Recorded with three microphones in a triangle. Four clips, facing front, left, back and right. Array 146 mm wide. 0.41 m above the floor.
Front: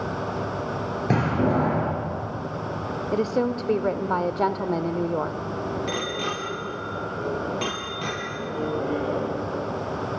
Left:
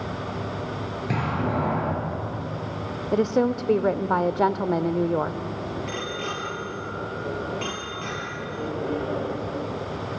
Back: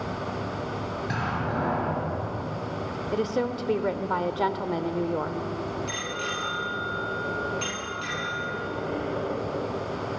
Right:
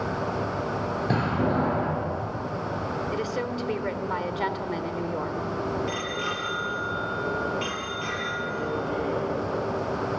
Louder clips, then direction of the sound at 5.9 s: Right 1 dB, front 4 dB; straight ahead.